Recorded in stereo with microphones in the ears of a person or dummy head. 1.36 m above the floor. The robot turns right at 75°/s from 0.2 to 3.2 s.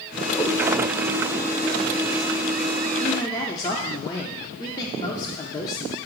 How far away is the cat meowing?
About 1.7 m.